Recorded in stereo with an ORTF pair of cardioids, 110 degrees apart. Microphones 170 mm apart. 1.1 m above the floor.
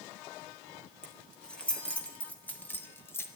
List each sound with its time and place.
1.0 s keys jangling: 5° left, 4 m; by 3.3 s 15° left, 2.5 m